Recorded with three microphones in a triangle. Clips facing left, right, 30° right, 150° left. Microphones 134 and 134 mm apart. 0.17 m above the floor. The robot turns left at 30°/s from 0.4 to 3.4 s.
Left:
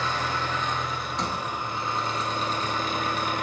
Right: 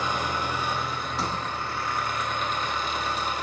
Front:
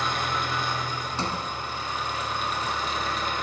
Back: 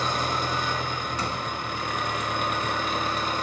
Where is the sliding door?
5° right, 0.6 m; by 1.4 s 15° right, 0.6 m.